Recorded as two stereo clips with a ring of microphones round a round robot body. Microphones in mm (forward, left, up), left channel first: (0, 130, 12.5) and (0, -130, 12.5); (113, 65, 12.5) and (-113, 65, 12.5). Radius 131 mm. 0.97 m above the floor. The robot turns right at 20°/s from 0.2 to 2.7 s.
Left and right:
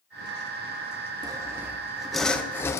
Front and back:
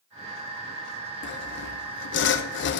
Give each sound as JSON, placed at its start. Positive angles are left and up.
{"t": 1.2, "sound": "sawing", "azimuth_deg": -20, "distance_m": 0.6}